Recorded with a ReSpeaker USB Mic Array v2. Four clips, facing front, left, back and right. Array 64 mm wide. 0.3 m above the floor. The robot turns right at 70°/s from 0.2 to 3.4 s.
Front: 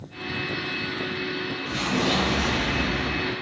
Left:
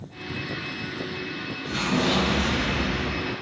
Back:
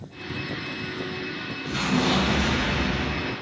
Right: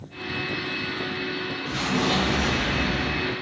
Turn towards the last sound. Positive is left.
turn(degrees=-105)